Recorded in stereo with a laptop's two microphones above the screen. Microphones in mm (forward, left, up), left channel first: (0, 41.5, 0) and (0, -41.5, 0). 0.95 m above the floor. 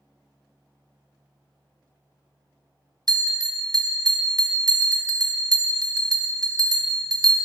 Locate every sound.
3.1 s a bell: 50° right (ahead or behind), 0.5 m